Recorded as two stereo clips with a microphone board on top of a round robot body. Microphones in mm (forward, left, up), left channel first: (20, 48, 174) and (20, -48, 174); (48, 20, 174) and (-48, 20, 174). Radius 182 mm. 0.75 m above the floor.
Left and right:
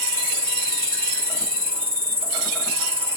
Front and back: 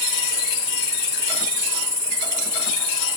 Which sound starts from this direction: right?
An insect, at 0.0 s.